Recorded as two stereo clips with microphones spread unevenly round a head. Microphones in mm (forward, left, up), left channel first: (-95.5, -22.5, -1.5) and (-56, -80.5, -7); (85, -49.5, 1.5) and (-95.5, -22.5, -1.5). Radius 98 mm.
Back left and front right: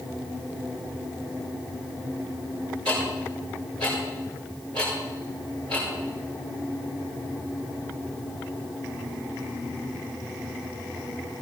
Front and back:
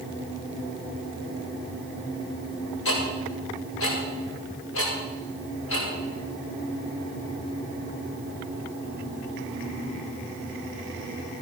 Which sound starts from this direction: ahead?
Ticking, at 2.9 s.